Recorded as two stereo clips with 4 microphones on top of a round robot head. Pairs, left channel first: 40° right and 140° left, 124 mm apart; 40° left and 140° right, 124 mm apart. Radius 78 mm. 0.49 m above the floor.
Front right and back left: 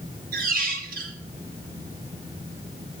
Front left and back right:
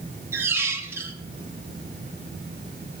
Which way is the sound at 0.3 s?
150° left.